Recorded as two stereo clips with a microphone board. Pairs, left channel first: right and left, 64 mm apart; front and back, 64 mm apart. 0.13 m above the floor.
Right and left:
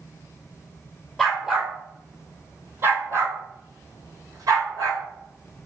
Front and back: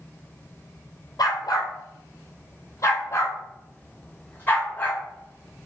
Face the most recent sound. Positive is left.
turn(degrees=65)